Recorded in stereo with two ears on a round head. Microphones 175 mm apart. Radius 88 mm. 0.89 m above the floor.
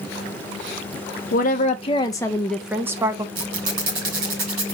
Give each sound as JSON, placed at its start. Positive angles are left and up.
{"t": 1.3, "sound": "a woman speaking", "side_deg": 45, "distance_m": 0.7}
{"t": 3.4, "sound": "a squeak", "side_deg": -75, "distance_m": 4.5}